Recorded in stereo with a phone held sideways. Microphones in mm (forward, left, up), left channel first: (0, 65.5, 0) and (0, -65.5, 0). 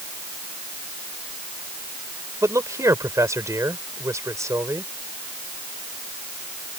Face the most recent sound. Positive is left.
turn(degrees=-25)  # may be behind; listen again after turning